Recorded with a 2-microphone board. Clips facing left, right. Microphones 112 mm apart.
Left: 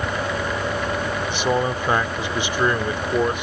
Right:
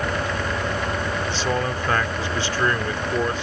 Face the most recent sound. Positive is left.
turn(degrees=20)  # may be behind; listen again after turning